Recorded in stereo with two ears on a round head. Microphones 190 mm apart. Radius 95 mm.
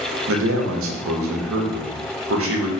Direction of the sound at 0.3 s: 65° right (ahead or behind).